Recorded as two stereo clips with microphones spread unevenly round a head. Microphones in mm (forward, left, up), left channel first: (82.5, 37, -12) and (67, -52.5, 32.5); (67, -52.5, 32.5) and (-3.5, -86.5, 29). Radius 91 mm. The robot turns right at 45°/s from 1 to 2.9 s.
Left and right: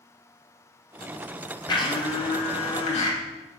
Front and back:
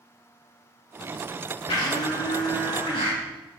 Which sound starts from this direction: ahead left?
A blender, at 1.7 s.